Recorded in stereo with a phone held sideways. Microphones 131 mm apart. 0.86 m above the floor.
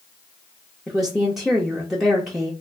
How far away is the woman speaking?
About 0.7 m.